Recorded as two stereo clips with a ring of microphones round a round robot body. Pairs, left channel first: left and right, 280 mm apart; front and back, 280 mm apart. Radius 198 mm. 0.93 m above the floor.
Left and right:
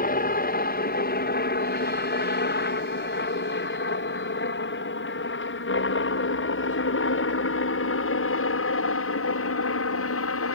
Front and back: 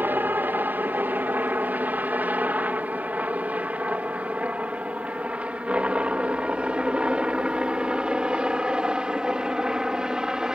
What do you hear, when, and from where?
0.0 s a helicopter: 105° left; by 10.5 s 95° left